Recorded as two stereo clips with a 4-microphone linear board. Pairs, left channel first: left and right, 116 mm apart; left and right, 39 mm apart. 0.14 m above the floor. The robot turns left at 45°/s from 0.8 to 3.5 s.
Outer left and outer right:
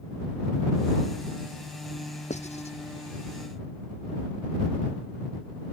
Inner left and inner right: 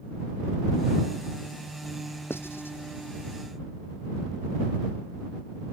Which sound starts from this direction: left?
Writing, at 2.3 s.